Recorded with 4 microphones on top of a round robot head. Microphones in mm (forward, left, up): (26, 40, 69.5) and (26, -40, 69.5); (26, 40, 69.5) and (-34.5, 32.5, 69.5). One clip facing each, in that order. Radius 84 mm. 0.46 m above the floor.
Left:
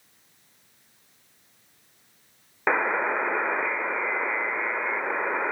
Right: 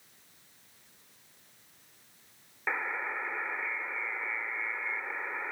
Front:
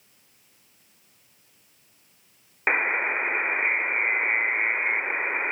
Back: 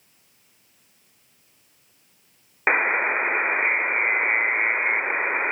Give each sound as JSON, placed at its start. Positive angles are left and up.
{"t": 2.7, "sound": "a buzzer", "azimuth_deg": 120}